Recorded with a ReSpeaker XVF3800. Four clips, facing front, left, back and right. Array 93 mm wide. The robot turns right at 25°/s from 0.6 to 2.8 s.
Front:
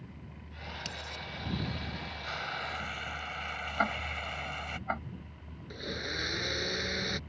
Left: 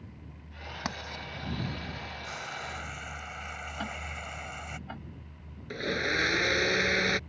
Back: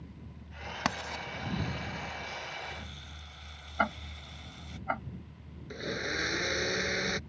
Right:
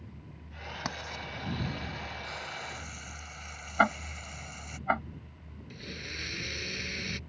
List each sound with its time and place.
0.8 s writing: straight behind; by 1.2 s 170° right
2.2 s frying: 15° left; by 4.8 s 30° left
3.8 s ticking: 100° right
5.7 s a blender: 95° left